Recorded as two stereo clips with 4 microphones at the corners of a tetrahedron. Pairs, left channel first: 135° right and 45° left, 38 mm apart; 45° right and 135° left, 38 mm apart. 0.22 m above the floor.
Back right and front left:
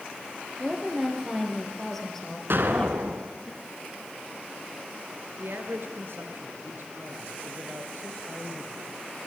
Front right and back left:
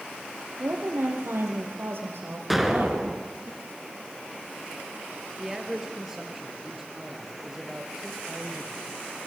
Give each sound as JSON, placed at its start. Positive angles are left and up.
{"t": 0.6, "sound": "a woman speaking", "azimuth_deg": 130, "distance_m": 6.5}
{"t": 2.5, "sound": "an explosion", "azimuth_deg": 45, "distance_m": 2.5}
{"t": 5.4, "sound": "a man speaking", "azimuth_deg": 55, "distance_m": 4.0}